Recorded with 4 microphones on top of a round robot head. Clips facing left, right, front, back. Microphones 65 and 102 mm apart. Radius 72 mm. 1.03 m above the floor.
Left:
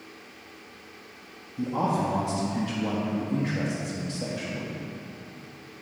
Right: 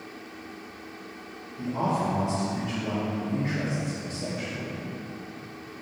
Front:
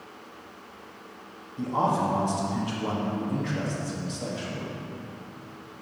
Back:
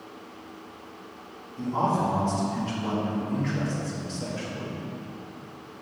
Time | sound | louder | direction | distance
1.6 | a man speaking | left 1 dB, even | 75° left | 1.5 m